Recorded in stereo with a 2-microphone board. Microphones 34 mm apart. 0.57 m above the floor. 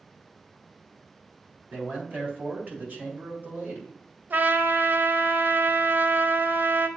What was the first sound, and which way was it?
A man speaking, 60° right (ahead or behind).